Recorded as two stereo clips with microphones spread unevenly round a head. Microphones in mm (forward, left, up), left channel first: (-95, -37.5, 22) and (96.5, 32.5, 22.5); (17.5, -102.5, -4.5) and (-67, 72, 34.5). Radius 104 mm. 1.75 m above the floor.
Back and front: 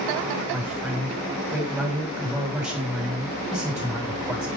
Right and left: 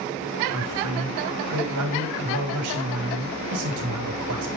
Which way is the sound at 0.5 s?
110° left.